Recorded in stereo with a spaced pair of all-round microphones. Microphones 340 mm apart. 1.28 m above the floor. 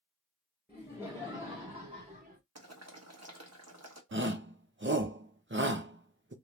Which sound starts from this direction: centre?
Laughter, at 0.7 s.